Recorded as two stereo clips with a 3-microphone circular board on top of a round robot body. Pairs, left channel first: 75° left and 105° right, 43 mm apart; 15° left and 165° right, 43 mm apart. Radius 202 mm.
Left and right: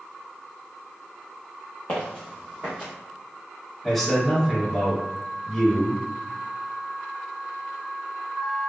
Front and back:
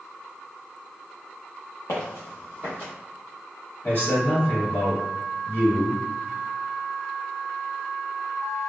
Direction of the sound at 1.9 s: 15° left.